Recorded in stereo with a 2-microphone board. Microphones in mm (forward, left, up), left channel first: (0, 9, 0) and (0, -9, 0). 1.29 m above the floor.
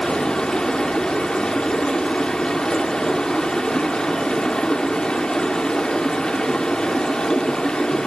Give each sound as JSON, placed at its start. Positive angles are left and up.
{"t": 0.0, "sound": "running water", "side_deg": 55, "distance_m": 2.0}